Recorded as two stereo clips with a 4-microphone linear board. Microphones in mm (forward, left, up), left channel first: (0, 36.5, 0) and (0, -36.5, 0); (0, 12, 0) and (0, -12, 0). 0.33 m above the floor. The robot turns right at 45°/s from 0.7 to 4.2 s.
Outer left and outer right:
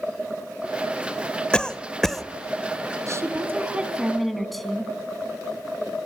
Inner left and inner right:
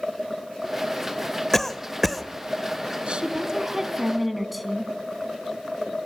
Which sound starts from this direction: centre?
A cough, at 1.5 s.